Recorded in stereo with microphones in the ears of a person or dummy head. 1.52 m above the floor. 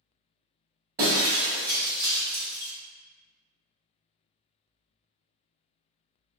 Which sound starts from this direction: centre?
Breaking glass, at 1.0 s.